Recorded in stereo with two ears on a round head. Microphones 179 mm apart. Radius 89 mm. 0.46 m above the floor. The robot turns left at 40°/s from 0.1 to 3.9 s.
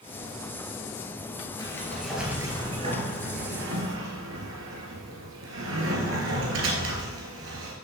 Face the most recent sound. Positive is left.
turn(degrees=-75)